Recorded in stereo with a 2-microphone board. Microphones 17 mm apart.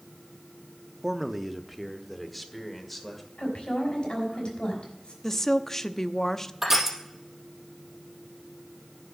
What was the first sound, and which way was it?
A man speaking, 10° right (ahead or behind).